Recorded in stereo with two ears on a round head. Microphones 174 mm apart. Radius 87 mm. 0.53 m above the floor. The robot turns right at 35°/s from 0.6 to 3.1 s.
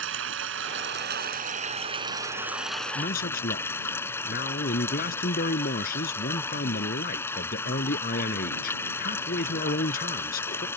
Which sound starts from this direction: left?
A man speaking, at 3.0 s.